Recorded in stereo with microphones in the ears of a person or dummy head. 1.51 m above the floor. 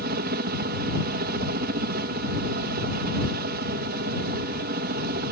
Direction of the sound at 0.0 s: 50° right (ahead or behind).